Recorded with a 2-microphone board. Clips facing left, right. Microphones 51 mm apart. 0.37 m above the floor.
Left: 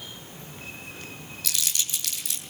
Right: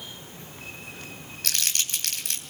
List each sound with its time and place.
1.4 s crumpling: 50° right (ahead or behind), 3 m